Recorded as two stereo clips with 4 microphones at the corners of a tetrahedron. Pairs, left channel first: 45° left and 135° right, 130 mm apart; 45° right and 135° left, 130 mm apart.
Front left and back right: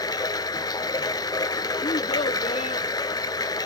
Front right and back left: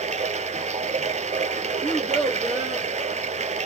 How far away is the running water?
About 0.7 m.